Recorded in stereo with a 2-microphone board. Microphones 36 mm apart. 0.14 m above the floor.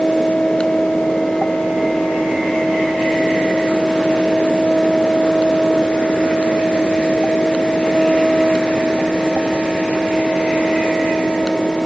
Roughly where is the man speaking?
No man speaking in this recording.